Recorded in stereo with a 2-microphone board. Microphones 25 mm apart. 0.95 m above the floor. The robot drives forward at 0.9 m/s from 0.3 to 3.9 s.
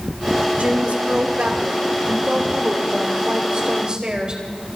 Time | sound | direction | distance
0.6 | a woman speaking | 65° right (ahead or behind) | 2.5 m